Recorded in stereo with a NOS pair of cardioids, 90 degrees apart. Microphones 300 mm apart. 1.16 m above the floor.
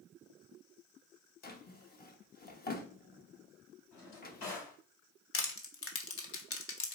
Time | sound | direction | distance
1.4 | a drawer | 30° left | 0.9 m
3.9 | a drawer | 65° left | 3.5 m
5.3 | crushing | 50° left | 1.1 m